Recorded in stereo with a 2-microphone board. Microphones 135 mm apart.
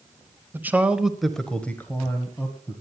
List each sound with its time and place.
0.5 s a man speaking: 15° right (ahead or behind), 1.1 m; by 2.8 s 20° left (ahead or behind), 2 m